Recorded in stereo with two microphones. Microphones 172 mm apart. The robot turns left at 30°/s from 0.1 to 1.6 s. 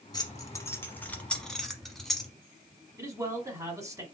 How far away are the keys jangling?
About 0.9 m.